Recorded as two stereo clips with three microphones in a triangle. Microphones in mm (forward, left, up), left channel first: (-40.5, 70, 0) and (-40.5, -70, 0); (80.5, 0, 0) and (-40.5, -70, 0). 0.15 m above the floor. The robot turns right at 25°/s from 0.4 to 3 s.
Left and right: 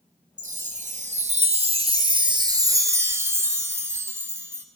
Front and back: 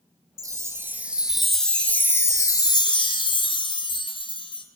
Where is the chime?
85° right, 0.8 m; by 4.7 s 20° right, 0.8 m.